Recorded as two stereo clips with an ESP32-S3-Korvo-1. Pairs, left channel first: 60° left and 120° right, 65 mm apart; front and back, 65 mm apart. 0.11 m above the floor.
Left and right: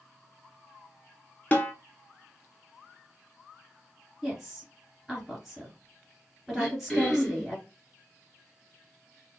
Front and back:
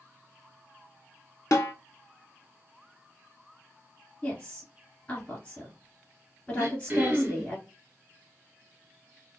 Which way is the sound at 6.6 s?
160° left.